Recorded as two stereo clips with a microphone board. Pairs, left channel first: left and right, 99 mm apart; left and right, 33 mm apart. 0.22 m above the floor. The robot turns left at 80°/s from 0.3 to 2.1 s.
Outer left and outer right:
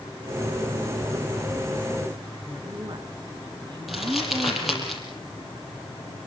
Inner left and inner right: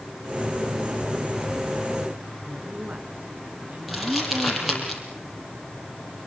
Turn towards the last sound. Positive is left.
turn(degrees=0)  # may be behind; listen again after turning